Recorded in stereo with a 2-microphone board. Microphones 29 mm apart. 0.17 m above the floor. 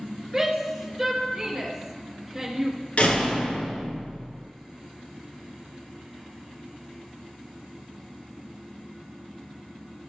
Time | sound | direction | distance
0.3 | a shout | 5° right (ahead or behind) | 2.5 m
3.0 | a door slam | 50° left (ahead or behind) | 2.5 m